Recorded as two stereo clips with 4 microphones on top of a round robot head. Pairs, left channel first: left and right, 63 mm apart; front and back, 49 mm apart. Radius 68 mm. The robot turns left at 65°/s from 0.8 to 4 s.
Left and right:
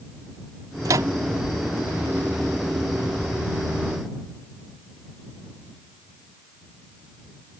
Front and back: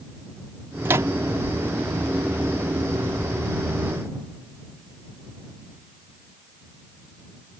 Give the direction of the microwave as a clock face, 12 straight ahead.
4 o'clock.